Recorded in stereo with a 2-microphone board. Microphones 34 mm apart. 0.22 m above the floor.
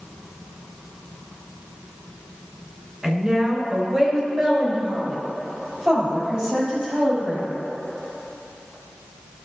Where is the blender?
I don't hear a blender.